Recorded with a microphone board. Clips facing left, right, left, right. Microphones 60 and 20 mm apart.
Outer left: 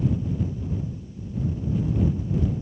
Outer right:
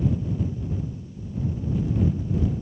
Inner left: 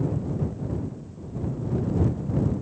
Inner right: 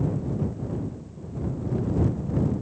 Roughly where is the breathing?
No breathing in this recording.